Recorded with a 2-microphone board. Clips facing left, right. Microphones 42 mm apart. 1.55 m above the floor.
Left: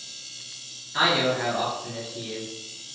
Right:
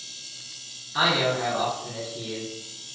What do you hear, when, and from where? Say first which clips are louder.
0.9 s a man speaking: even; 15° left (ahead or behind), 1.2 m